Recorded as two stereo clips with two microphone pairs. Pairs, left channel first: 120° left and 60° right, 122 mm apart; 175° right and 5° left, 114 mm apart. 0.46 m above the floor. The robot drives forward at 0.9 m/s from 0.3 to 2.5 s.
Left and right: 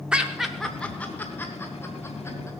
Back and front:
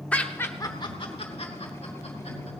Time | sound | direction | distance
0.1 | laughter | 125° right | 0.7 m